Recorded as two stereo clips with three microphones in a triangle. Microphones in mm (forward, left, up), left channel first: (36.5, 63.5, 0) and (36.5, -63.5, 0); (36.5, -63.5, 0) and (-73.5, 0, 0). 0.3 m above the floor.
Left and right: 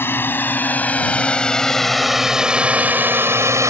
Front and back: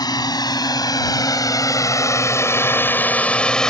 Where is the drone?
20° left; by 3.7 s 110° right.